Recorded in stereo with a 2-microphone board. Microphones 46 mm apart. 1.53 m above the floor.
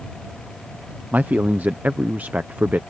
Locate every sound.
1.1 s a man speaking: 40° right (ahead or behind)